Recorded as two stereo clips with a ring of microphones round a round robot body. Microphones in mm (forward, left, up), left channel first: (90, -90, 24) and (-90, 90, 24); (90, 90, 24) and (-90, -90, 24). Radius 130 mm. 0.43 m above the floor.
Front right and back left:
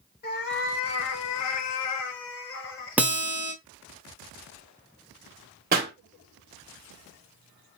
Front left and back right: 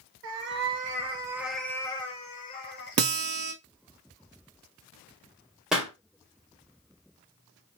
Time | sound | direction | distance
0.2 | a cat meowing | 95° right | 0.9 m
3.0 | a guitar | 145° right | 0.7 m
5.7 | a pop | 140° left | 1.4 m